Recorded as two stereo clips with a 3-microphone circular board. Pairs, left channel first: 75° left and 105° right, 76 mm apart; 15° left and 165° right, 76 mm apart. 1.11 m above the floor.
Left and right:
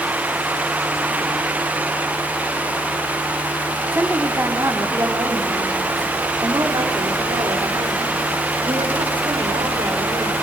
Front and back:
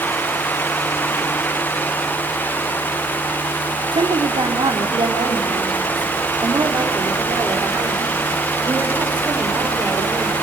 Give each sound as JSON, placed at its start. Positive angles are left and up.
{"t": 3.9, "sound": "a woman speaking", "azimuth_deg": -165, "distance_m": 3.5}